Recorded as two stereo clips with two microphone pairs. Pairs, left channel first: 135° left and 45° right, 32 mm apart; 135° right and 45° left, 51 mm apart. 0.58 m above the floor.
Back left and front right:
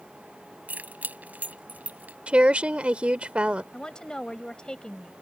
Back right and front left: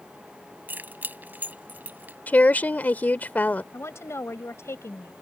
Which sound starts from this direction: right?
A woman speaking, at 2.3 s.